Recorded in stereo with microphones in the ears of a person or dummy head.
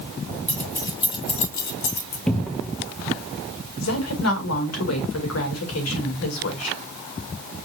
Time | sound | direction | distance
0.5 | keys jangling | 15° left (ahead or behind) | 2.0 m
2.3 | a cupboard door | 5° left (ahead or behind) | 0.7 m
3.8 | a woman speaking | 80° left | 2 m